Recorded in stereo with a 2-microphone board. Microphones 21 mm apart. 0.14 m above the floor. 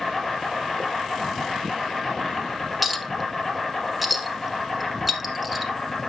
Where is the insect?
5° left (ahead or behind), 2.5 m.